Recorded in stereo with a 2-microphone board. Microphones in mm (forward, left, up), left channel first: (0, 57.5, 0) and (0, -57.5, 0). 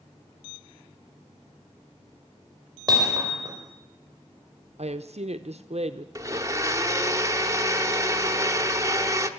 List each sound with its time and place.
2.9 s hammering: 35° right (ahead or behind), 5 m
4.8 s a woman speaking: 65° right (ahead or behind), 0.6 m
6.2 s a blender: 25° right (ahead or behind), 1.0 m